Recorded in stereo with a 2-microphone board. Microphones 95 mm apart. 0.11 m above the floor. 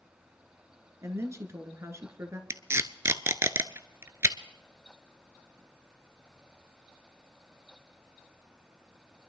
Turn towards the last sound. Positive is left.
turn(degrees=-30)  # may be behind; listen again after turning